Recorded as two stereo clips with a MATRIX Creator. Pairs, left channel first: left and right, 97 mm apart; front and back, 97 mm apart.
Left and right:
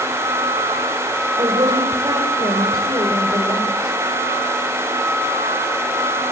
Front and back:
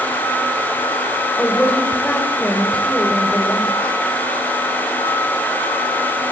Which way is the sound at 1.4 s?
75° right.